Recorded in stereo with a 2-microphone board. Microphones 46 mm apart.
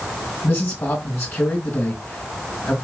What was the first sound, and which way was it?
A man speaking, 65° left (ahead or behind).